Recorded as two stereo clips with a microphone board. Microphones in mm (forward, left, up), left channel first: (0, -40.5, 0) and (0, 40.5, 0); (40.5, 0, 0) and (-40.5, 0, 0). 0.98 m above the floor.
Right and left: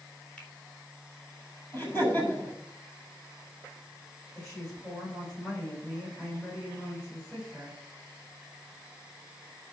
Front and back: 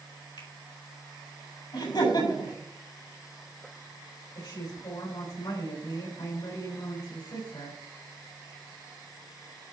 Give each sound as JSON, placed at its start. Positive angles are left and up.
{"t": 0.4, "sound": "a finger snap", "azimuth_deg": -15, "distance_m": 3.5}
{"t": 1.7, "sound": "laughter", "azimuth_deg": -25, "distance_m": 7.0}
{"t": 4.3, "sound": "a woman speaking", "azimuth_deg": -10, "distance_m": 5.0}